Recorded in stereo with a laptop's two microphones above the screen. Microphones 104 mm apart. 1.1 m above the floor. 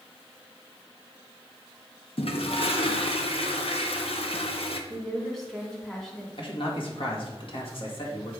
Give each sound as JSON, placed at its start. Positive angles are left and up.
{"t": 2.2, "sound": "a toilet flushing", "side_deg": 65, "distance_m": 0.8}
{"t": 4.9, "sound": "a woman speaking", "side_deg": 5, "distance_m": 2.0}
{"t": 6.4, "sound": "a man speaking", "side_deg": 60, "distance_m": 1.8}